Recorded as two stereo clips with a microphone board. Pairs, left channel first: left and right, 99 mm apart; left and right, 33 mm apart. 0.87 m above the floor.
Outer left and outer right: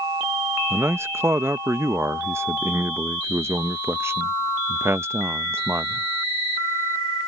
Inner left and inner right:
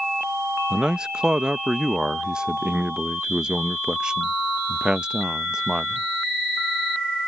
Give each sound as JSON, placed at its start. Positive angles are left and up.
{"t": 0.7, "sound": "a man speaking", "side_deg": -25}